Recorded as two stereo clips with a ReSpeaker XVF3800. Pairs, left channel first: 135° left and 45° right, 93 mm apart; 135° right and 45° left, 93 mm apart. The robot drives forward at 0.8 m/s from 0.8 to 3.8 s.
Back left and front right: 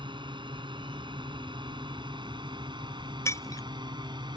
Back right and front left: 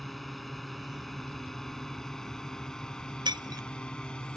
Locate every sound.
0.0 s a drone: 45° right; by 4.4 s 55° right
3.2 s breaking glass: 75° left; by 3.6 s 85° left